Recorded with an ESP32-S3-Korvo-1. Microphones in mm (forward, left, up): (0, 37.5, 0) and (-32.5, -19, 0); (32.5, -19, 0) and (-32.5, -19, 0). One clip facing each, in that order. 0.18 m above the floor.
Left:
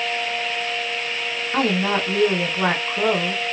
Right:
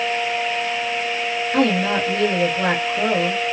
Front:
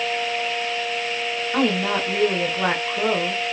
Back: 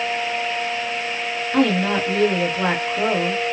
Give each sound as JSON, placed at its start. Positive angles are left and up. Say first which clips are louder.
{"t": 1.5, "sound": "a woman speaking", "louder": "right 2 dB, back 3 dB", "azimuth_deg": 85, "distance_m": 1.3}